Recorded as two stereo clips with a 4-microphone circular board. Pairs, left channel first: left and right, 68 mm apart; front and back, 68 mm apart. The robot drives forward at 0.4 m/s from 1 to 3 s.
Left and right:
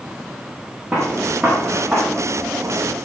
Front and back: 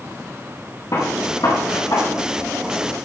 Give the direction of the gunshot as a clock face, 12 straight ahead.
12 o'clock.